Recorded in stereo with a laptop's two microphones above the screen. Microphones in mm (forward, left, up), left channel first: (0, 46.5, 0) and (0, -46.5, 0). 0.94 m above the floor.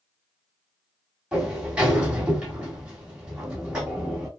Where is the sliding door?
10° right (ahead or behind), 2.5 m.